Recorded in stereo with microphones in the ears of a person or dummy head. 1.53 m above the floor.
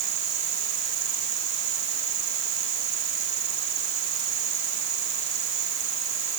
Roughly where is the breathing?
No breathing in this recording.